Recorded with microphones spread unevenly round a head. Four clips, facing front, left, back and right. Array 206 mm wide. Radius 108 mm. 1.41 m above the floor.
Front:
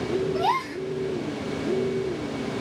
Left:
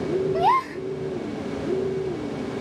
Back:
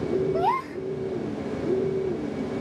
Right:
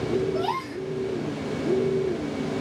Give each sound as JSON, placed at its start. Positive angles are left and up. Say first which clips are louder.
{"t": 0.3, "sound": "a gasp", "louder": "left 7 dB, even", "azimuth_deg": 165, "distance_m": 2.5}